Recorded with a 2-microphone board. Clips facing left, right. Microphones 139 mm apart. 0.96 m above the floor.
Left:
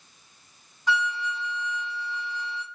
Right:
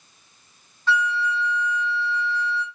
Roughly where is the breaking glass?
I don't hear breaking glass.